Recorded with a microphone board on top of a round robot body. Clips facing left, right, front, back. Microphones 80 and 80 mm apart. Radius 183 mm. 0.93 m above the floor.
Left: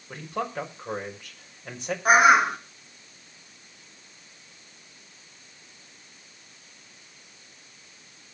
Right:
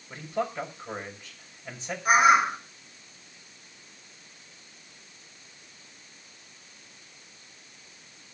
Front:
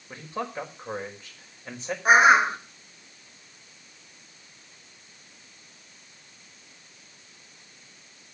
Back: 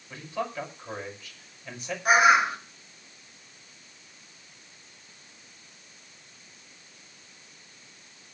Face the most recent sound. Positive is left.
turn(degrees=60)